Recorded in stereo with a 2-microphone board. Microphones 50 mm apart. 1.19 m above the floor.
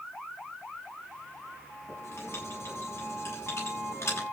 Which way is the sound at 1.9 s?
65° left (ahead or behind).